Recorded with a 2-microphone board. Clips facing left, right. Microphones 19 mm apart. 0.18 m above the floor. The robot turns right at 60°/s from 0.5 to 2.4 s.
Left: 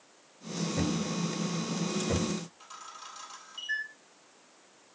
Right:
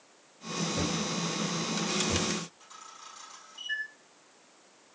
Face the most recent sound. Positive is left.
turn(degrees=45)  # may be behind; listen again after turning